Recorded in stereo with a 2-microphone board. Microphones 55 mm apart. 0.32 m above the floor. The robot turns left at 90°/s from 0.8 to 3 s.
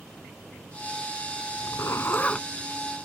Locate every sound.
1.6 s a zipper: 85° left; by 2.5 s 10° left